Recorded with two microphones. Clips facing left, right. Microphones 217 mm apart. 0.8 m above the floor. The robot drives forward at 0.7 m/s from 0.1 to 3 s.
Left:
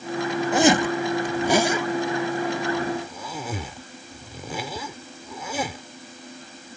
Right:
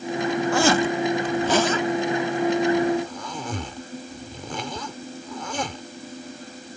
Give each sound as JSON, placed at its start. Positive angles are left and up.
{"t": 0.5, "sound": "a zipper", "side_deg": 20}